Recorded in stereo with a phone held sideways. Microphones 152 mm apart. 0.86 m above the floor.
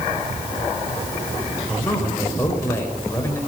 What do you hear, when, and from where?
1.7 s a man speaking: 15° left (ahead or behind), 4.5 m